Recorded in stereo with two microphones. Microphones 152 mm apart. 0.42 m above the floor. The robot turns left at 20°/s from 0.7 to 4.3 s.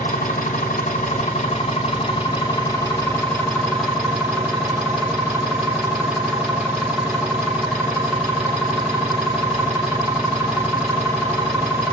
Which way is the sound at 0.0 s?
60° left.